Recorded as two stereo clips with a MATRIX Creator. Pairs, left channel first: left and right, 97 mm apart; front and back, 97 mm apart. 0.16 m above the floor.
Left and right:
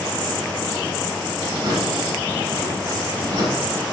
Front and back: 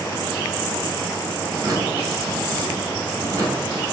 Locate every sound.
1.5 s a drawer: 125° right, 2.5 m